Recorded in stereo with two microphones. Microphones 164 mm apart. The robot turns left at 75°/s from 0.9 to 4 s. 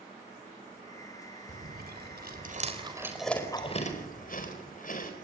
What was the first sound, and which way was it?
Chewing, 50° right (ahead or behind).